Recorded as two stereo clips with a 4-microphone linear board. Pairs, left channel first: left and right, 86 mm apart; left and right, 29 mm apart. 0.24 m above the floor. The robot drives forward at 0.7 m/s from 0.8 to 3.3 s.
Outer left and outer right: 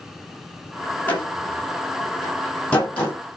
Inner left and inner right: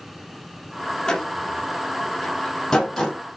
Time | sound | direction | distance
1.1 | a door slam | 20° left (ahead or behind) | 6 m